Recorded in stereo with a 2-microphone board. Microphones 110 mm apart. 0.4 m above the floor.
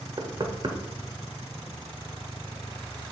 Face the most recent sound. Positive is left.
turn(degrees=-45)  # may be behind; listen again after turning